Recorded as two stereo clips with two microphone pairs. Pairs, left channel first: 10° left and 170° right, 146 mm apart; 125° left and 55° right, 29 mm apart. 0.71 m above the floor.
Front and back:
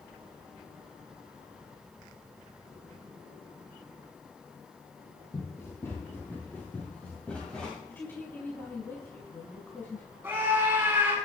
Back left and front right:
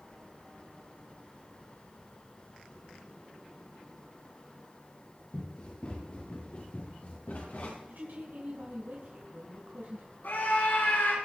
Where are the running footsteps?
75° left, 9 m; by 7.8 s 95° left, 10 m.